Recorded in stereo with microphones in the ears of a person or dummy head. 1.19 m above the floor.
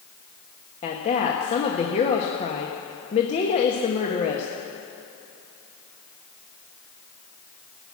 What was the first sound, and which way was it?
A woman speaking, 35° left (ahead or behind).